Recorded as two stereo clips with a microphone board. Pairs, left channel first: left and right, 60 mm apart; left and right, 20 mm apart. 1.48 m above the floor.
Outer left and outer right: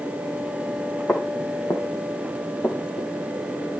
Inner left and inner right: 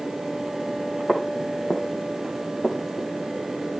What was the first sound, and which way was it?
Footsteps, 40° left (ahead or behind).